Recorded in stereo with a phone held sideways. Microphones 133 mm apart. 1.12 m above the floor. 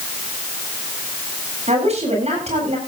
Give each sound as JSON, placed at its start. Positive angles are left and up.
{"t": 1.7, "sound": "a woman speaking", "side_deg": -55, "distance_m": 8.5}